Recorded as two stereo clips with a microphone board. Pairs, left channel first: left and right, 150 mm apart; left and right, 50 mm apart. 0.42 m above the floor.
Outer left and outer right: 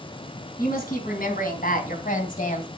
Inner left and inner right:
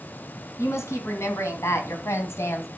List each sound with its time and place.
0.6 s a woman speaking: 75° left (ahead or behind), 3.5 m; by 2.7 s 65° left (ahead or behind), 2.5 m